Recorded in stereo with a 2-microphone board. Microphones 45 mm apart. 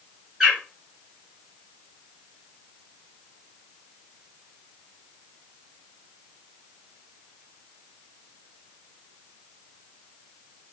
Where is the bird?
10° right (ahead or behind), 1.7 m.